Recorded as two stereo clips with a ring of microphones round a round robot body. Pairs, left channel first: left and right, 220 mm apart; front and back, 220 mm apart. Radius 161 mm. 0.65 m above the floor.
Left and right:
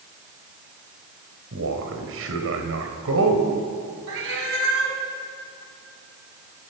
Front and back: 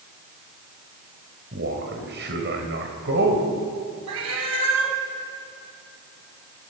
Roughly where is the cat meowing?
Behind right.